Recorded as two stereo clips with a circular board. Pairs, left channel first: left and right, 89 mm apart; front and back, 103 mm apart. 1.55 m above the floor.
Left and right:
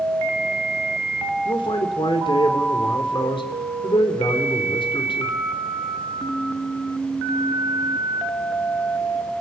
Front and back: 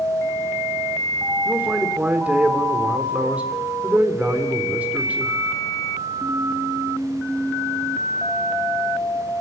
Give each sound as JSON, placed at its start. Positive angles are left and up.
{"t": 1.4, "sound": "a man speaking", "azimuth_deg": 105, "distance_m": 4.0}